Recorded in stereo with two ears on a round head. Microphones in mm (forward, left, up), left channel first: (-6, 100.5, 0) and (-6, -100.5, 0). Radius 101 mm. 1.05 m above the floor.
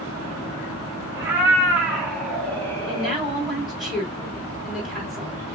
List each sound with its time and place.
1.1 s a cat meowing: 10° right (ahead or behind), 3 m; by 3.2 s 35° left (ahead or behind), 1.2 m
2.9 s a woman speaking: centre (ahead or behind), 3 m